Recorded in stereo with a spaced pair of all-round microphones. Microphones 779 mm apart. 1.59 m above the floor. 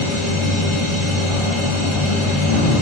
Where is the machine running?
40° left (ahead or behind), 1.3 m.